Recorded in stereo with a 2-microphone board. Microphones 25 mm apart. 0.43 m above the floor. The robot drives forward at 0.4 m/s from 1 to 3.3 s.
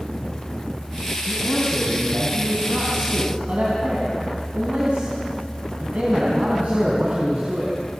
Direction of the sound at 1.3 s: 50° right (ahead or behind).